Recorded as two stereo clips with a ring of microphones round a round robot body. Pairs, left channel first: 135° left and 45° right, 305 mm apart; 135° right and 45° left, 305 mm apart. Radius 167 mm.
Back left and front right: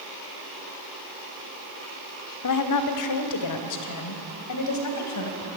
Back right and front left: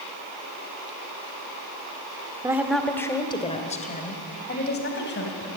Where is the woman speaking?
125° left, 1.6 m; by 5.5 s 170° left, 4 m.